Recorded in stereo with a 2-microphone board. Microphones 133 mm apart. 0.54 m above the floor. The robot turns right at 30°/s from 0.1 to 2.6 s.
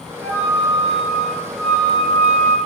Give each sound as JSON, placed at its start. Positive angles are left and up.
{"t": 0.2, "sound": "a flute", "azimuth_deg": -40, "distance_m": 1.8}